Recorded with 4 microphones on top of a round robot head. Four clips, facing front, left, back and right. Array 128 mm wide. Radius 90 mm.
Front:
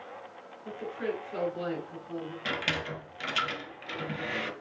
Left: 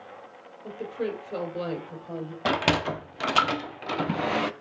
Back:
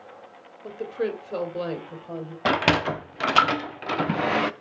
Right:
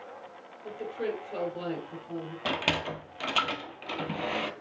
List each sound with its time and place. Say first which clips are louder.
0.6 s a woman speaking: left 2 dB, back 6 dB; 175° right, 2.5 m; by 2.4 s 155° left, 2.5 m
2.5 s a sliding door: left 7 dB, back 14 dB; 165° left, 0.5 m